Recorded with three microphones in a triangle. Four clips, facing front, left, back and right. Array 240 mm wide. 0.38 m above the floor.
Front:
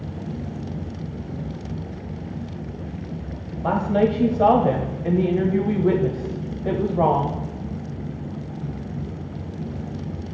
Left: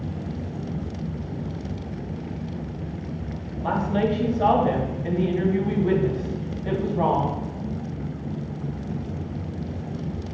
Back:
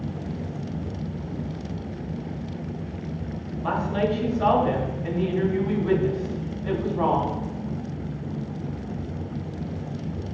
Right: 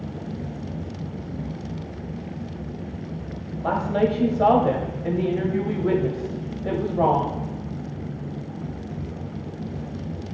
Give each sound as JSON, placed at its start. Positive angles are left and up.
{"t": 3.6, "sound": "a woman speaking", "azimuth_deg": -25, "distance_m": 1.7}